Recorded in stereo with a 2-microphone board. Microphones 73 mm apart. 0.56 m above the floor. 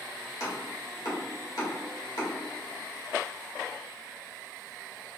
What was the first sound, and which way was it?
Chopping, 60° left (ahead or behind).